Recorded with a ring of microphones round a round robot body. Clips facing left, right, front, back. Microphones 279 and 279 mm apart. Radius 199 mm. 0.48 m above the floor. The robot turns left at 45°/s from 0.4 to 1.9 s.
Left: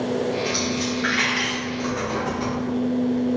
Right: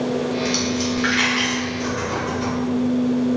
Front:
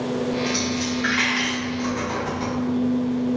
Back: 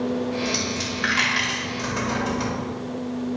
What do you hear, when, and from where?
0.5 s a dropped coin: 125° right, 1.0 m; by 2.6 s 170° left, 1.0 m